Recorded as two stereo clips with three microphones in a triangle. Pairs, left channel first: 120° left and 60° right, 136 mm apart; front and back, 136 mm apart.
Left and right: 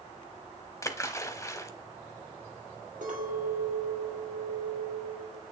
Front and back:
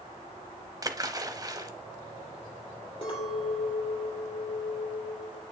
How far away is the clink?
About 3.5 m.